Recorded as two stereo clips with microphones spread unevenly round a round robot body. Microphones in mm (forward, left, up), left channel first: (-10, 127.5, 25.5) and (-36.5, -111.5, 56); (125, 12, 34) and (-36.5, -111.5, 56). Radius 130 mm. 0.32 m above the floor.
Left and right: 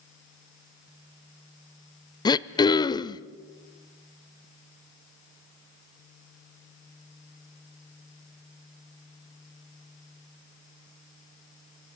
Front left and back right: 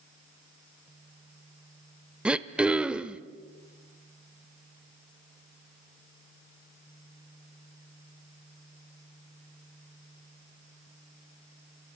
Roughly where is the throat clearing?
Behind left.